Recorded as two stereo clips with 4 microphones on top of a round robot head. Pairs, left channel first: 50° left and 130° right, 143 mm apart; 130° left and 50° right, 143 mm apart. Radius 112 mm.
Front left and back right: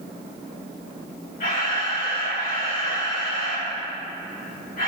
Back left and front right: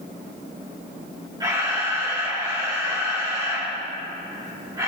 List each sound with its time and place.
1.4 s a camera shutter: 15° left, 4.5 m